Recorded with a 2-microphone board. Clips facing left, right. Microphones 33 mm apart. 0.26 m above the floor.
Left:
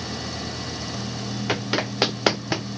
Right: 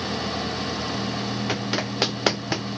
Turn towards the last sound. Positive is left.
turn(degrees=5)  # may be behind; listen again after turning